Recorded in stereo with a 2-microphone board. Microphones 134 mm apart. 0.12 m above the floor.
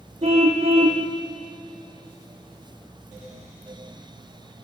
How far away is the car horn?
About 2.5 m.